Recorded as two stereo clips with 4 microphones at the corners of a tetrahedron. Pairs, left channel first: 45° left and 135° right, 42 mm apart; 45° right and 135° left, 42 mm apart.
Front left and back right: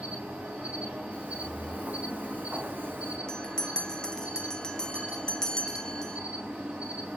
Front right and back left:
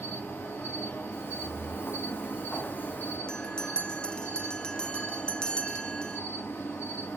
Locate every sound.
0.0 s an insect: 80° right, 7.5 m
1.1 s footsteps: 75° right, 4.5 m; by 3.2 s 100° right, 2.5 m
3.3 s a bell: 5° right, 1.2 m